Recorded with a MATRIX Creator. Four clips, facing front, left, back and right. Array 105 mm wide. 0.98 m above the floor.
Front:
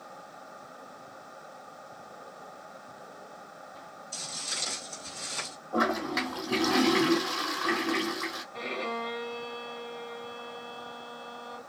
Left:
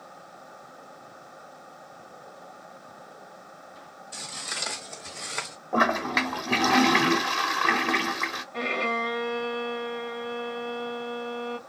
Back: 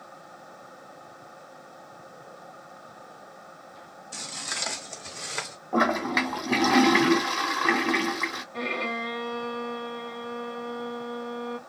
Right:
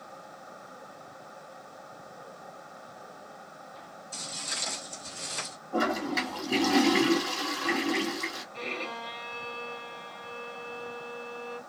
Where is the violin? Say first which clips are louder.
Left 12 dB, back 3 dB; 120° left, 1.1 m.